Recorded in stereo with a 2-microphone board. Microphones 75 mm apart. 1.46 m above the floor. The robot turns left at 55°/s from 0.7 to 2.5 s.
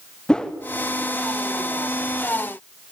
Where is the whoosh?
10° left (ahead or behind), 0.9 m.